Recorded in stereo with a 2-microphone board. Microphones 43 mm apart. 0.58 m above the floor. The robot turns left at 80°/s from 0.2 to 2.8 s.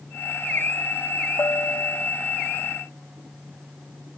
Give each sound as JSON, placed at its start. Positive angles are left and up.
{"t": 1.4, "sound": "a bell", "azimuth_deg": 105}